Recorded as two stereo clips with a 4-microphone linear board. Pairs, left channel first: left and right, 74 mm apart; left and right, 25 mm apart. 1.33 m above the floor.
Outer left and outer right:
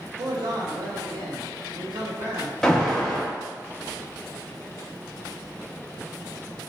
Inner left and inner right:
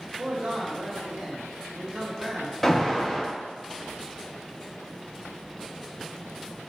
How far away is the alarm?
About 0.7 m.